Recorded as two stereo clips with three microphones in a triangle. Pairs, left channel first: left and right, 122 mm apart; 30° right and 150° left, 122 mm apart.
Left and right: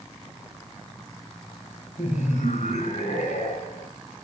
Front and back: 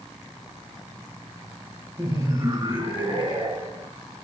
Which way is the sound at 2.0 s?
90° left.